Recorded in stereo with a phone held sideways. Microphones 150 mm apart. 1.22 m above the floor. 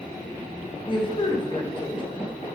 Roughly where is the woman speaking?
Left.